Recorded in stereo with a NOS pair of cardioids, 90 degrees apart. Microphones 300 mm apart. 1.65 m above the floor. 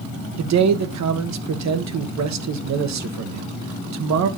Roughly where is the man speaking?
Ahead right.